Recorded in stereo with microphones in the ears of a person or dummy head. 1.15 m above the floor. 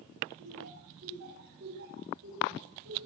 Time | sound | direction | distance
0.4 | laughter | 60° right (ahead or behind) | 7.5 m